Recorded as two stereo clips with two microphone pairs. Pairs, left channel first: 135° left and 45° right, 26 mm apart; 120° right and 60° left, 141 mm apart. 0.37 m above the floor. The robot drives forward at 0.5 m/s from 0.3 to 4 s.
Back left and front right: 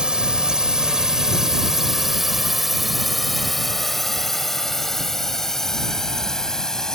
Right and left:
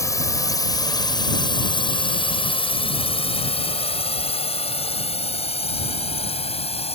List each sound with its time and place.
0.0 s a drone: 70° right; by 7.0 s 155° right